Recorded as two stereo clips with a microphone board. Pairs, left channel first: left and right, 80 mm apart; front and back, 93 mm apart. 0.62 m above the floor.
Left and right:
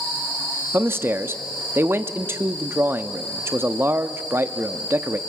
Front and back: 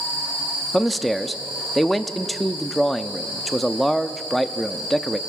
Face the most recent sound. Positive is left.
turn(degrees=-90)